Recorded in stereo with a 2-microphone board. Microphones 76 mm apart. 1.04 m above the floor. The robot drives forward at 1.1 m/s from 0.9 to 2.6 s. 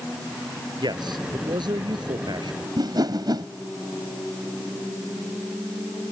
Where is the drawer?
I don't hear a drawer.